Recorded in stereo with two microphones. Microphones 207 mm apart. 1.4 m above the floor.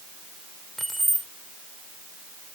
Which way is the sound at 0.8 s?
Centre (ahead or behind).